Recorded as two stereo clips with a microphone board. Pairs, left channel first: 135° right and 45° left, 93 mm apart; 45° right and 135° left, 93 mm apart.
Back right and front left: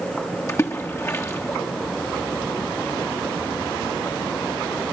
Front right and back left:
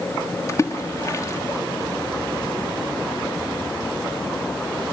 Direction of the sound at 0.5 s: 90° right.